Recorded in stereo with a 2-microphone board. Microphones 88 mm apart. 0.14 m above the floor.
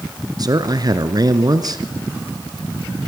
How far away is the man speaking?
About 1.5 m.